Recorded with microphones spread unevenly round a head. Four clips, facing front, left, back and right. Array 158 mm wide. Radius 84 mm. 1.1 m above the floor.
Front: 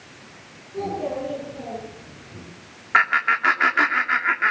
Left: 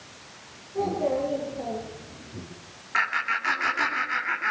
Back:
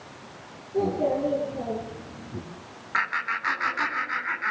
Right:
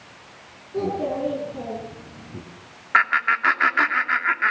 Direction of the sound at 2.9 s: 35° right.